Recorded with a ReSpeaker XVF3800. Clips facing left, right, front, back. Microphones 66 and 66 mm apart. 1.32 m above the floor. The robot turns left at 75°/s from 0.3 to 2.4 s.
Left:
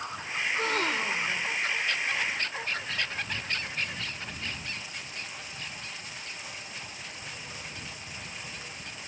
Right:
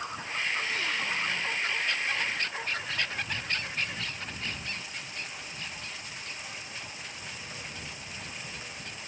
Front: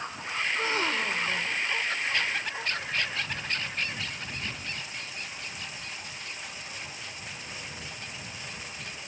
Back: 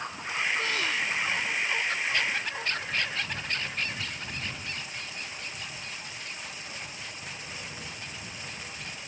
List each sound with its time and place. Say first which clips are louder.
0.4 s a gasp: left 4 dB, front 1 dB; 85° left; by 1.5 s straight ahead